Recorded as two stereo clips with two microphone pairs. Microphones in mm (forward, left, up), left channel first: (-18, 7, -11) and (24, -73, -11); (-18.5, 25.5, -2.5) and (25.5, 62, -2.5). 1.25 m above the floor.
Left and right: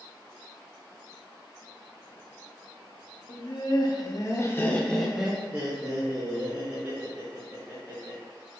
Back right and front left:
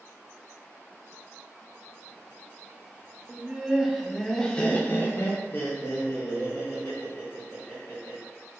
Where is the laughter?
110° left, 1.0 m; by 8.2 s 100° right, 2 m.